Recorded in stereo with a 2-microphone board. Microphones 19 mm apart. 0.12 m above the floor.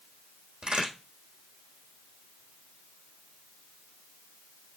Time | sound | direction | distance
0.6 | a crack | 50° right (ahead or behind) | 4 m